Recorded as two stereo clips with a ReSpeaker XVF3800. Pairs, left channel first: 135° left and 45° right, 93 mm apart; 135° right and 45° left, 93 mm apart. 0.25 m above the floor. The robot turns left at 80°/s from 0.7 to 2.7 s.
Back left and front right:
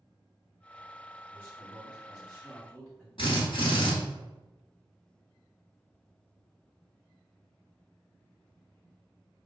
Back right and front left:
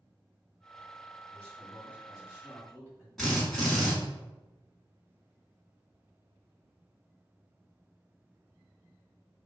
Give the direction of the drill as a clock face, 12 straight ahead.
7 o'clock.